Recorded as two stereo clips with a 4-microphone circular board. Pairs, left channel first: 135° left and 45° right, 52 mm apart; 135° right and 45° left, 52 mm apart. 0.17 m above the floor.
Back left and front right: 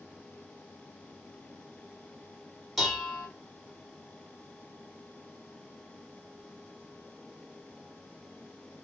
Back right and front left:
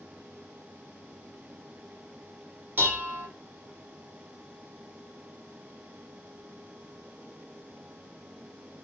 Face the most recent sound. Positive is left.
turn(degrees=40)